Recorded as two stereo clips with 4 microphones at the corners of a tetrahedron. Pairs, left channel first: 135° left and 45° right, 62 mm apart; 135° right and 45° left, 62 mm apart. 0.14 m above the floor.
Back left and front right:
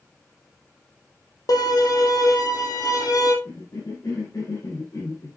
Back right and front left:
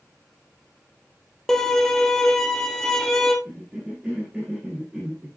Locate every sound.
1.5 s a violin: 145° left, 2.0 m
3.5 s a cough: 120° left, 4 m